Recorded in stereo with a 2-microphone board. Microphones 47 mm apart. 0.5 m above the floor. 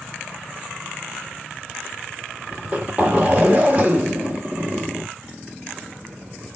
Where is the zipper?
30° right (ahead or behind), 1.6 m.